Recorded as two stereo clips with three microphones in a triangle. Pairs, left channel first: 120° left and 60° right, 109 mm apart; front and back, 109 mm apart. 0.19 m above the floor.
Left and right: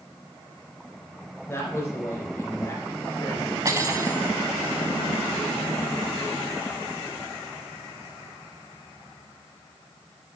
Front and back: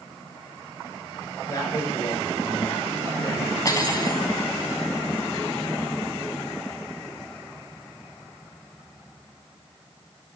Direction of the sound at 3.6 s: 25° right.